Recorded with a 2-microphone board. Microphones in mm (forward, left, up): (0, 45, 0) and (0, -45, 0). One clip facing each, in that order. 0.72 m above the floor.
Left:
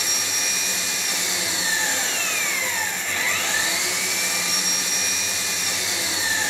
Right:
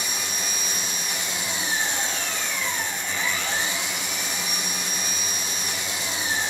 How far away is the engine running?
About 4.5 m.